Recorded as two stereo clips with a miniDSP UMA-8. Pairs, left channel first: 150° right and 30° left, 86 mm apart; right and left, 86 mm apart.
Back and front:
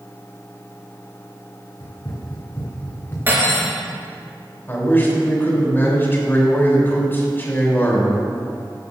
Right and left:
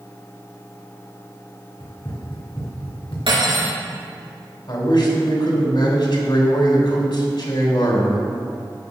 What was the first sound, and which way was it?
Running footsteps, 115° right.